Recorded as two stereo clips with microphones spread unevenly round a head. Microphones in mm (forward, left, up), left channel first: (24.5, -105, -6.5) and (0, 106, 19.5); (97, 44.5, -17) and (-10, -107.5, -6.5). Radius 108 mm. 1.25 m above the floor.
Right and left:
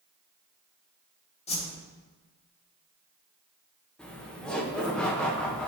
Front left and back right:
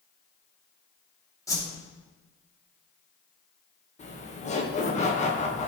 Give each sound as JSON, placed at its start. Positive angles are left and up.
{"t": 1.5, "sound": "a whoosh", "azimuth_deg": -20, "distance_m": 2.0}
{"t": 4.0, "sound": "laughter", "azimuth_deg": 0, "distance_m": 1.4}